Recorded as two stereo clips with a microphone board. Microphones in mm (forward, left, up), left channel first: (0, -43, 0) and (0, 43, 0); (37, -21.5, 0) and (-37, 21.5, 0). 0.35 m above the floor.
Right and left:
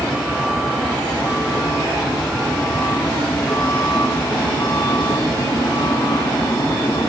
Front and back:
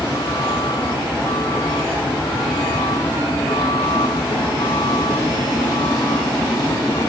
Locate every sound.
0.0 s a vehicle: 5° left; by 7.1 s 50° right